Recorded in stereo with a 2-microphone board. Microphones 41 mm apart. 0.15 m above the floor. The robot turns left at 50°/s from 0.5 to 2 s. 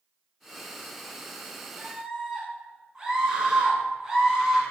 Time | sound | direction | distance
1.8 | a scream | 20° right (ahead or behind) | 1.2 m